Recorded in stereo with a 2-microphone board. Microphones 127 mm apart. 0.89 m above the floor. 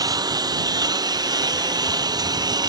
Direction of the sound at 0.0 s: 30° right (ahead or behind).